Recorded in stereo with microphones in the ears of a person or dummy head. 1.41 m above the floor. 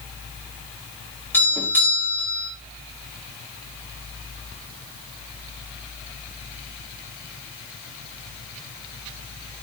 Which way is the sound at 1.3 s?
10° left (ahead or behind).